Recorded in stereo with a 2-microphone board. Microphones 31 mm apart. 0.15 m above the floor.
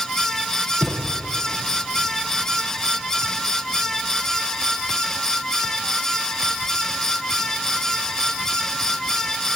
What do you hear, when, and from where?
0.8 s a thud: 10° right (ahead or behind), 3 m